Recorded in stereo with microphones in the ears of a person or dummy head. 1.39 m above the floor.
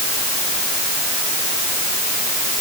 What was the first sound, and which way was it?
Only background noise.